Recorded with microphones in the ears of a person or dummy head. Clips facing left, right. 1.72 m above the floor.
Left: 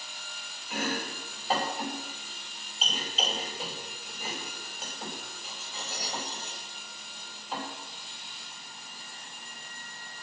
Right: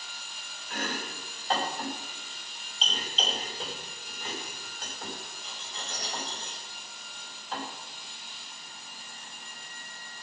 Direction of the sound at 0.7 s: 5° left (ahead or behind).